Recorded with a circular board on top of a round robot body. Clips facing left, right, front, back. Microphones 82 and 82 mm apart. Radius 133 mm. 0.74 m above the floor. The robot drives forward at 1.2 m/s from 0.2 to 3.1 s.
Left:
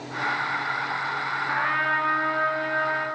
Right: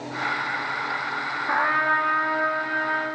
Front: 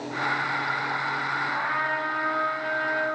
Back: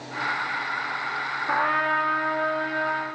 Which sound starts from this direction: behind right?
A trumpet, at 1.5 s.